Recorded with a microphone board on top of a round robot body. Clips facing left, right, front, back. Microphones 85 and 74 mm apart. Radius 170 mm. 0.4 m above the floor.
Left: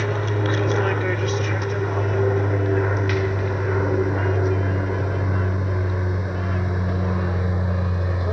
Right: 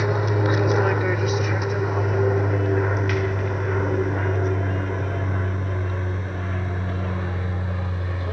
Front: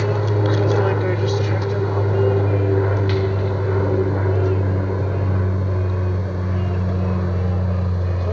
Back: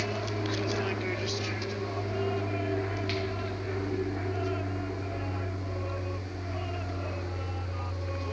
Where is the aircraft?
15° right; by 8.3 s 20° left.